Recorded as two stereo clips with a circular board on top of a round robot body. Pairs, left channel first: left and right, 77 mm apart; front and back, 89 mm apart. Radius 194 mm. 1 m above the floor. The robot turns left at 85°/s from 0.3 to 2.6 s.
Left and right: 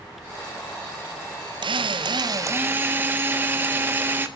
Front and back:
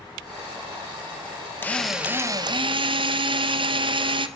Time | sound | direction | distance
1.6 | a drill | 70° right | 1.3 m